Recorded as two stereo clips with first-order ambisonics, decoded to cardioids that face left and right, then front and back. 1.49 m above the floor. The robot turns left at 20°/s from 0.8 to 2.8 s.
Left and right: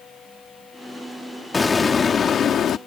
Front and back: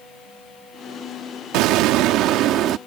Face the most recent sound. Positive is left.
turn(degrees=140)